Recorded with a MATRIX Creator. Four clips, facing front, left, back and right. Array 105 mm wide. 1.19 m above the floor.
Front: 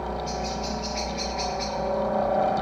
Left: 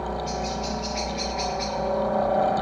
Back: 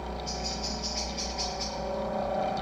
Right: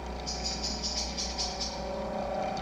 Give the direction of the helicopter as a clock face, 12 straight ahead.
10 o'clock.